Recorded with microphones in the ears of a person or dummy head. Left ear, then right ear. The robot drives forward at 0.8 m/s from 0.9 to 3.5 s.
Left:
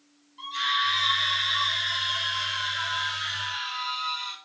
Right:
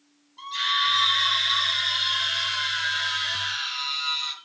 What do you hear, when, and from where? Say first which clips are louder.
0.4 s a scream: right 2 dB; 15° right (ahead or behind), 7.5 m; by 4.3 s 20° right (ahead or behind), 5.5 m